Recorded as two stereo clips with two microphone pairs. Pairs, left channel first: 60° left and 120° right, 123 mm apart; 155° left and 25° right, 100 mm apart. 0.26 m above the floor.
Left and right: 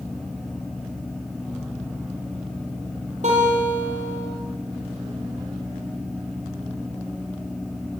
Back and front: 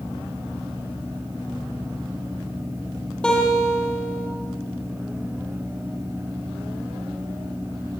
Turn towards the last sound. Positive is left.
turn(degrees=-125)